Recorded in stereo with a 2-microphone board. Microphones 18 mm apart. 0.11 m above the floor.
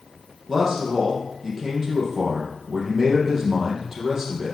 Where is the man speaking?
20° right (ahead or behind), 4 m.